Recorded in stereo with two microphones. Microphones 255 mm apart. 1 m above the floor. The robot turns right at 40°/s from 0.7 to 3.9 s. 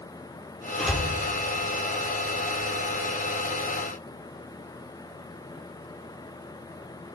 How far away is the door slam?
About 2.5 m.